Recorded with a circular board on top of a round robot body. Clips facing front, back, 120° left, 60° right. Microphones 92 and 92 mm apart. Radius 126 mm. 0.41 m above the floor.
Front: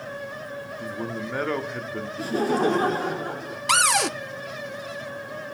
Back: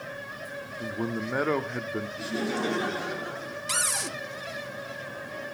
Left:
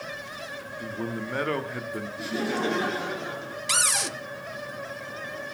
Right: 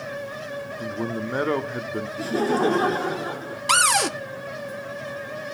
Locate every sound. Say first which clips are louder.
0.8 s a man speaking: back 2 dB, right 3 dB; 105° right, 1.4 m
2.2 s laughter: front 9 dB, right 7 dB; 30° right, 1.6 m
3.7 s a cupboard door: front 13 dB, right 10 dB; 25° right, 0.5 m